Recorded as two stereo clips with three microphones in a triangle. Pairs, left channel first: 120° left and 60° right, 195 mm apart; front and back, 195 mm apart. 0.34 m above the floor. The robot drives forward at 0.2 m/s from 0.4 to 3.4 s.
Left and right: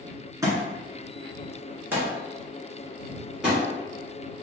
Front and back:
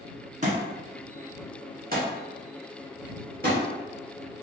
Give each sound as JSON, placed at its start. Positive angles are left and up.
{"t": 0.4, "sound": "a thud", "azimuth_deg": -135, "distance_m": 1.4}